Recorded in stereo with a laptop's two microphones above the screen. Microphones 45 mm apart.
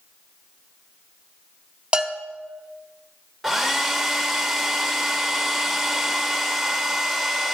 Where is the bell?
25° right (ahead or behind), 1.6 m.